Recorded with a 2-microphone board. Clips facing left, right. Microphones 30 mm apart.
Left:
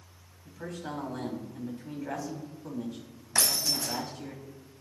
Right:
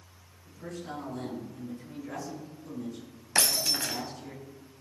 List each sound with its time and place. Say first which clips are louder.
0.5 s a man speaking: left 1 dB; 80° left, 5.5 m
3.4 s breaking glass: right 1 dB; 55° right (ahead or behind), 1.4 m